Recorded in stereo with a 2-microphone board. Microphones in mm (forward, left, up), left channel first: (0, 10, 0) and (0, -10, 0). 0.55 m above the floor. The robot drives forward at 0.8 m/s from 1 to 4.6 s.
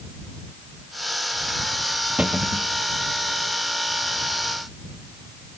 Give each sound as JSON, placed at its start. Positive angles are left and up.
{"t": 2.2, "sound": "a cupboard door", "side_deg": -85}